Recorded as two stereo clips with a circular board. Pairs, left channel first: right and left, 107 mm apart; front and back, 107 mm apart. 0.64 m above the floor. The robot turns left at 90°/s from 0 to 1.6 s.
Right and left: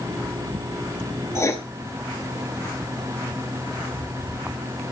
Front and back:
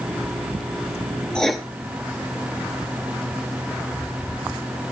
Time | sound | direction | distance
1.4 | writing | 75° right | 1.2 m